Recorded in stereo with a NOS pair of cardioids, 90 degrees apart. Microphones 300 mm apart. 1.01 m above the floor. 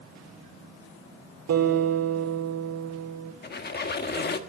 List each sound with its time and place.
1.5 s a guitar: 60° right, 7.5 m
3.4 s a squeak: 35° left, 1.5 m